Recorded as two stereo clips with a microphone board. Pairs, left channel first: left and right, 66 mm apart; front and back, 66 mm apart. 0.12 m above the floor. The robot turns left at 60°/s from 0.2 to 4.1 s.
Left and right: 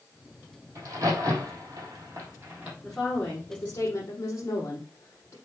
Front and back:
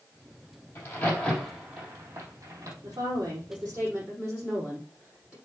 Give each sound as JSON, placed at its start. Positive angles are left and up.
{"t": 0.8, "sound": "a crack", "azimuth_deg": -50, "distance_m": 3.5}
{"t": 2.8, "sound": "a woman speaking", "azimuth_deg": -175, "distance_m": 4.5}